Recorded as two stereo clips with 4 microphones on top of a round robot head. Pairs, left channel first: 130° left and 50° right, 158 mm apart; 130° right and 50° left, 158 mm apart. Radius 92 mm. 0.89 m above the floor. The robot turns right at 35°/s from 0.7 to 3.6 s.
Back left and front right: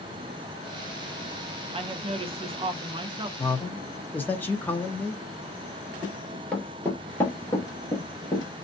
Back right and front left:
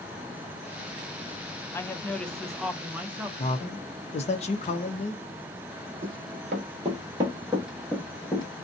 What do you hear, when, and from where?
1.7 s a woman speaking: 65° right, 0.6 m; by 3.3 s 10° right, 0.6 m
3.4 s a man speaking: 165° right, 0.7 m; by 5.2 s 155° right, 0.7 m
6.0 s running footsteps: 40° left, 1.1 m; by 8.5 s straight behind, 0.9 m